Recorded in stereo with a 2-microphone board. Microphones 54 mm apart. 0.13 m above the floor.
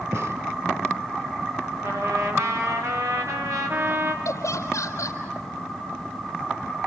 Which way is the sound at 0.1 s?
60° right (ahead or behind).